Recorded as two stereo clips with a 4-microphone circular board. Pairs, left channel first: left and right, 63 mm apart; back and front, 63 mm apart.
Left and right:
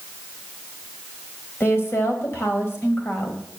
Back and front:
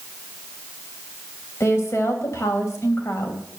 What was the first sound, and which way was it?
A woman speaking, 135° left.